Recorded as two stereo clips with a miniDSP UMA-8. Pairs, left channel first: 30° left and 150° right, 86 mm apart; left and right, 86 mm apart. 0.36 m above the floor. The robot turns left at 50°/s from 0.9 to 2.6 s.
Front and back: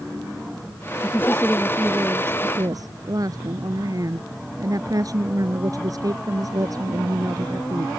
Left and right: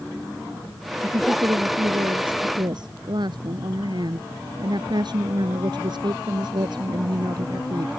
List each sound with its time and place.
1.0 s a woman speaking: 35° right; by 7.9 s 110° right